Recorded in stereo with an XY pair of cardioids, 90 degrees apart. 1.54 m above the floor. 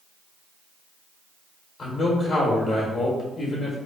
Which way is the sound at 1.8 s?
50° left.